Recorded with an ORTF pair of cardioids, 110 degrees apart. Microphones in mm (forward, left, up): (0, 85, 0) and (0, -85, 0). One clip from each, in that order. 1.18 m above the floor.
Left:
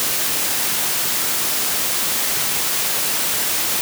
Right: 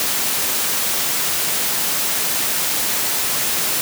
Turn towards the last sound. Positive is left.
No sound to turn to.